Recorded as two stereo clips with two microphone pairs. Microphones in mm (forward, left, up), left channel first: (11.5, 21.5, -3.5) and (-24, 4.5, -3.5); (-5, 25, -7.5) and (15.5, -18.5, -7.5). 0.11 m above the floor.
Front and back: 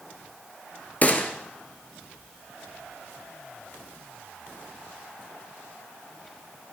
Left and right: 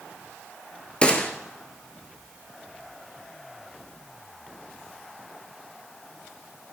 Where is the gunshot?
55° left, 1.0 m.